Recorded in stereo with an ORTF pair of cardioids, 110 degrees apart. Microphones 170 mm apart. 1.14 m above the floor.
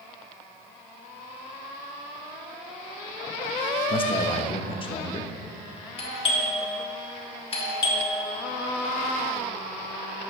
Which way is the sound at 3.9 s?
30° left.